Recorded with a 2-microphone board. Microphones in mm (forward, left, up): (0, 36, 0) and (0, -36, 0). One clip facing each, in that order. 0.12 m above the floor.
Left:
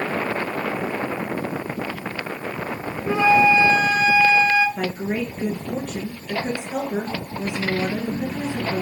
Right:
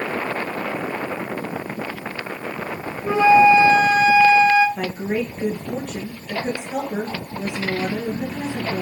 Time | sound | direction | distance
3.0 | a flute | 25° right (ahead or behind) | 1.3 m
4.8 | a woman speaking | 15° right (ahead or behind) | 2.5 m